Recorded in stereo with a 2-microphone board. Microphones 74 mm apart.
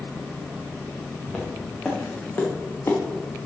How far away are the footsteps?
About 4.5 m.